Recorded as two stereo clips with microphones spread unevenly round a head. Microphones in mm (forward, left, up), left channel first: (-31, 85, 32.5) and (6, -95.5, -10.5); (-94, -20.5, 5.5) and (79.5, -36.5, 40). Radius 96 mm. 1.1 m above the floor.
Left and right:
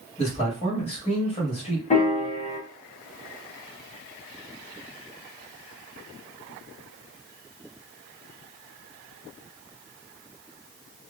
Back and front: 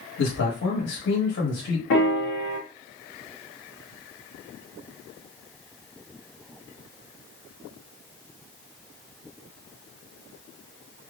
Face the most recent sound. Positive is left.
turn(degrees=160)